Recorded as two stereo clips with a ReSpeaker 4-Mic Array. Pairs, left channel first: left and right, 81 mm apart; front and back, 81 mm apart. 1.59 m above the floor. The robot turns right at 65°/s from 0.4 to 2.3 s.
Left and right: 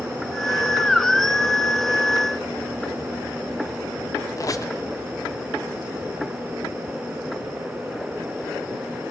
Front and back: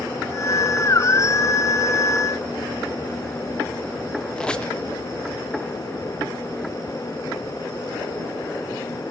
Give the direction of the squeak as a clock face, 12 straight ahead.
9 o'clock.